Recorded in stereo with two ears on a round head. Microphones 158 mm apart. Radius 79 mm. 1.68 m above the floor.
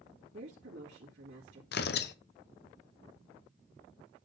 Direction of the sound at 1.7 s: 60° left (ahead or behind).